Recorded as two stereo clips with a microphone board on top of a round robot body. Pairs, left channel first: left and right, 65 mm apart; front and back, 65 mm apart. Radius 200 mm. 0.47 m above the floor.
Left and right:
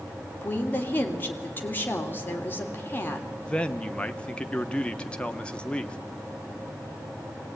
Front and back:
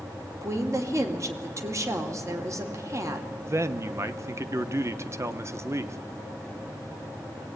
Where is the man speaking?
160° left, 1.3 m.